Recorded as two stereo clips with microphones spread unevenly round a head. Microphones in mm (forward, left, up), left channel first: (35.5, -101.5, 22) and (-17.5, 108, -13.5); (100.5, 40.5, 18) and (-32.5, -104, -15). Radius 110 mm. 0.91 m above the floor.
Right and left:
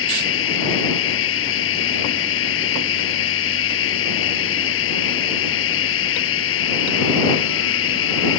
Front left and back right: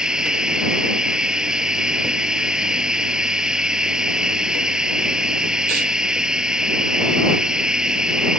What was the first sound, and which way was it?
Running water, 45° right.